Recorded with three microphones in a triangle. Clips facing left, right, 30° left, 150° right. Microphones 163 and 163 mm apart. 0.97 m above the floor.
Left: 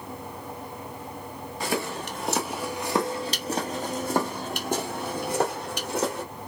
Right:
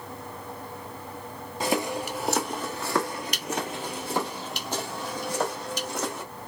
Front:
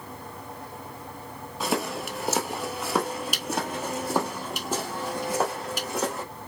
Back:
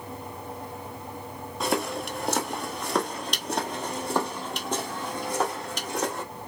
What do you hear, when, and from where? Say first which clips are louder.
1.6 s footsteps: right 3 dB, back 1 dB; 55° right, 1.0 m; by 6.2 s 115° left, 2.5 m